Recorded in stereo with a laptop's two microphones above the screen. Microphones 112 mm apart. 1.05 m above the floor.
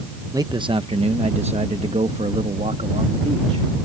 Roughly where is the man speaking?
Right.